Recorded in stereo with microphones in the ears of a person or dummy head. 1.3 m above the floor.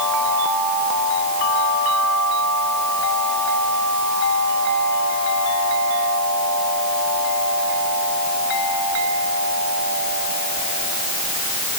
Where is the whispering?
I don't hear whispering.